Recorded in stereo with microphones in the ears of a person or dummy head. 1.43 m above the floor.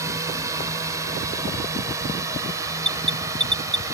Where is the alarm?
15° right (ahead or behind).